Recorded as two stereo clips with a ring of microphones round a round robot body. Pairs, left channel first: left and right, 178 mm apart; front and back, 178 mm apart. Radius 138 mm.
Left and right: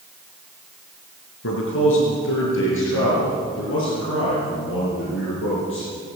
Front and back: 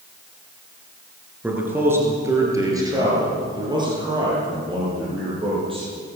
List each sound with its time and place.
1.4 s a man speaking: 100° left, 5.5 m; by 5.9 s 120° left, 10.5 m